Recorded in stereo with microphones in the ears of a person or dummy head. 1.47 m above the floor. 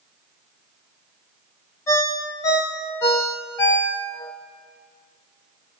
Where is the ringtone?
15° left (ahead or behind), 0.8 m.